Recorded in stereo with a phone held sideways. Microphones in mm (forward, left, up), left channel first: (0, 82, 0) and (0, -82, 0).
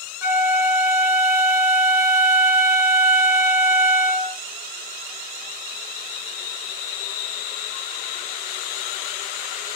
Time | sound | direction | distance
0.2 | a flute | 15° right (ahead or behind) | 2 m